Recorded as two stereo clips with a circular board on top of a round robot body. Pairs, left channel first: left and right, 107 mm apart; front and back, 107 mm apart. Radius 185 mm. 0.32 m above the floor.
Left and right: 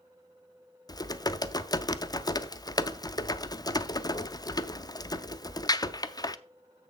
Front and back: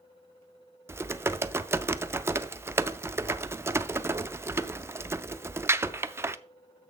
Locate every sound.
0.9 s typing on a keyboard: 125° left, 0.7 m